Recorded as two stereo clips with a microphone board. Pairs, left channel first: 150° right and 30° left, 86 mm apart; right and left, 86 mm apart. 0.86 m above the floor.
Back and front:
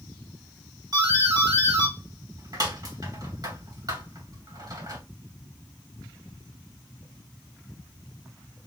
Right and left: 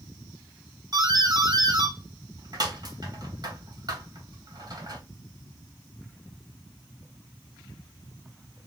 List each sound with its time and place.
0.9 s a doorbell: 65° left, 2.5 m